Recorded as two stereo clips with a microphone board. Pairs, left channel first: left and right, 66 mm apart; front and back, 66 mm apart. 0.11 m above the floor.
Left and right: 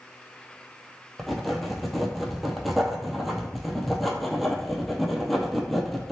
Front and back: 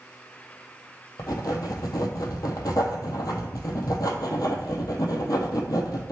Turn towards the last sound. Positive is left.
turn(degrees=0)